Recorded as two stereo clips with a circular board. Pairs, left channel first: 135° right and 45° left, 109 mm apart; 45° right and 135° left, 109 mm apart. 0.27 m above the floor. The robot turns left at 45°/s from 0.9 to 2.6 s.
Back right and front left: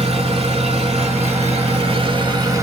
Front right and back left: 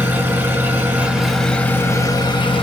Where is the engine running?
60° left, 1.8 m; by 2.6 s 15° right, 1.8 m.